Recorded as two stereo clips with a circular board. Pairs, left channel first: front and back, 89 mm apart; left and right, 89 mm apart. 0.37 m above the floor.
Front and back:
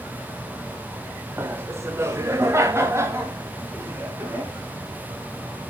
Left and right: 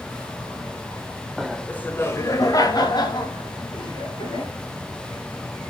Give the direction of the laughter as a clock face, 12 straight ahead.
6 o'clock.